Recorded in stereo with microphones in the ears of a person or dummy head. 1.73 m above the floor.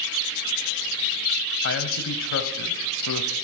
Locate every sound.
1.6 s a man speaking: 70° left (ahead or behind), 0.8 m